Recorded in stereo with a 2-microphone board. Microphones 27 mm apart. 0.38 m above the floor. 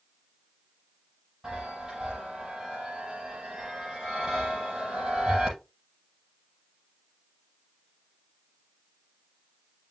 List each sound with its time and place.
1.4 s a chime: 25° right (ahead or behind), 7 m